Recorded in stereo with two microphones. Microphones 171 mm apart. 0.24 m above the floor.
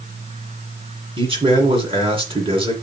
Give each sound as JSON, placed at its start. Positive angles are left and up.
{"t": 1.2, "sound": "a man speaking", "side_deg": -30, "distance_m": 2.5}